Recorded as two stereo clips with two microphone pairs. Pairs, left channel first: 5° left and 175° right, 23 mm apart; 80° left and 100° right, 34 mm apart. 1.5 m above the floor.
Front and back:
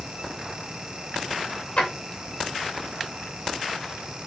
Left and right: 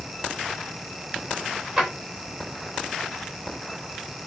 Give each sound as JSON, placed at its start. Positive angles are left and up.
{"t": 1.8, "sound": "a drawer", "azimuth_deg": -30, "distance_m": 2.5}